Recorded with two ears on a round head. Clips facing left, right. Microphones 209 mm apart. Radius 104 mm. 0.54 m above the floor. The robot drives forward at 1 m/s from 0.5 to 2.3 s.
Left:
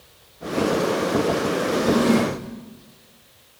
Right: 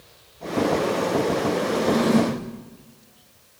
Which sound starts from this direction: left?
A drawer, at 1.7 s.